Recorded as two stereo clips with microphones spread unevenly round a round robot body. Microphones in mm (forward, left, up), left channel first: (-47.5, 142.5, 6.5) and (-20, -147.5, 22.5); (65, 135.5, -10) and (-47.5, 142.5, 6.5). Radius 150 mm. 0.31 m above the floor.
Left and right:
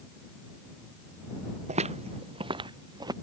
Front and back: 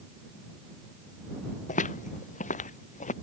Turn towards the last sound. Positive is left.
turn(degrees=-5)